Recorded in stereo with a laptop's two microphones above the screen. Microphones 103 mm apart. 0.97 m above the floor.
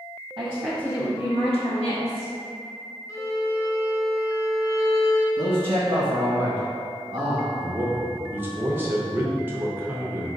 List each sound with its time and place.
0.4 s a woman speaking: 40° right (ahead or behind), 0.6 m; by 2.3 s 80° left, 1.9 m
3.1 s a violin: 30° left (ahead or behind), 0.8 m
5.4 s a man speaking: 40° right (ahead or behind), 1.3 m
7.5 s a man speaking: 20° right (ahead or behind), 0.5 m